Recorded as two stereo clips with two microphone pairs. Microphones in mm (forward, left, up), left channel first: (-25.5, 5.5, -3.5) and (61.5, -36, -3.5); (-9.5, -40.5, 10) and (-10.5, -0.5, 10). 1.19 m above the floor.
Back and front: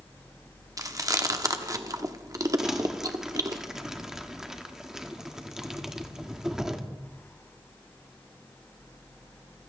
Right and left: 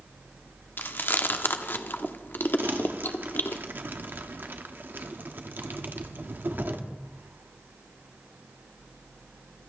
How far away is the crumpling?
About 1.4 m.